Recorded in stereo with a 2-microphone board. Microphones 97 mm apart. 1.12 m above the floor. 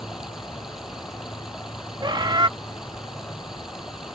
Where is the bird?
50° right (ahead or behind).